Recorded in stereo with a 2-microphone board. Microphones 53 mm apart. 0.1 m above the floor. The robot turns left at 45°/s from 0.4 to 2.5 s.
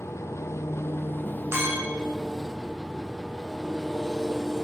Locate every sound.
0.0 s an engine running: 85° left, 0.9 m; by 4.7 s 10° right, 0.9 m
1.5 s a clink: 50° right (ahead or behind), 3 m; by 2.0 s 70° right (ahead or behind), 3 m